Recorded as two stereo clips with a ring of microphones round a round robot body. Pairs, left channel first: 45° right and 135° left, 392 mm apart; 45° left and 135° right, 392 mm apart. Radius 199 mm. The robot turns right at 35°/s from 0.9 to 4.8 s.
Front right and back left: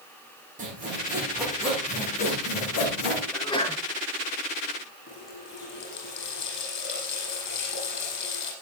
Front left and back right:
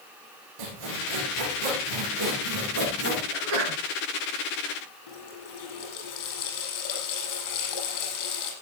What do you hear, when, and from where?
0.6 s sawing: 155° right, 9.5 m; by 3.2 s 70° right, 9.5 m
3.3 s a sneeze: 130° right, 4.5 m; by 3.8 s 115° right, 4.5 m
5.1 s a running tap: 15° left, 8 m